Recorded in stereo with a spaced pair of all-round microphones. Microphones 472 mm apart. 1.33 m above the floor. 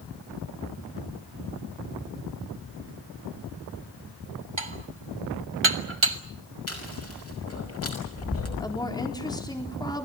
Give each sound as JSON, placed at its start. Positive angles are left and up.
{"t": 4.6, "sound": "dishes clattering", "side_deg": -75, "distance_m": 1.2}
{"t": 6.7, "sound": "chewing", "side_deg": 30, "distance_m": 5.5}
{"t": 8.6, "sound": "a woman speaking", "side_deg": 10, "distance_m": 4.0}